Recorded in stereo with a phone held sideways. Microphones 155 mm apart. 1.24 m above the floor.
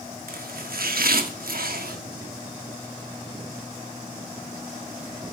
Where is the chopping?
70° right (ahead or behind), 1.2 m.